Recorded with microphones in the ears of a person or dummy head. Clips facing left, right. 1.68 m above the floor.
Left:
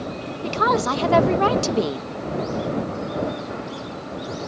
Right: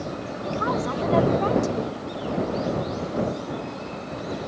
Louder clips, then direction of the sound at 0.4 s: Left 4 dB; 85° left.